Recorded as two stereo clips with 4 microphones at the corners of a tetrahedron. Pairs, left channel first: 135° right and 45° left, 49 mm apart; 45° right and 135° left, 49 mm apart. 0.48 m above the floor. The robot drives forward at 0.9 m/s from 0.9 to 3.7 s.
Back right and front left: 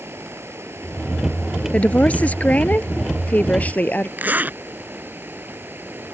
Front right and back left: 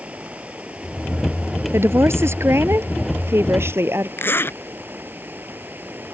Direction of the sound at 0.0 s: 75° left.